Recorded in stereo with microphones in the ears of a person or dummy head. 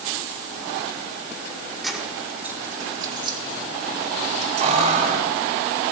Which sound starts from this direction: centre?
Keys jangling, at 1.8 s.